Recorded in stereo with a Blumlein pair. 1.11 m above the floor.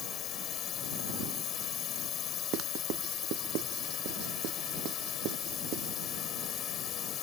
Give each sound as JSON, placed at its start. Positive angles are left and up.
{"t": 0.0, "sound": "a drone", "azimuth_deg": 30}
{"t": 2.5, "sound": "writing", "azimuth_deg": -35}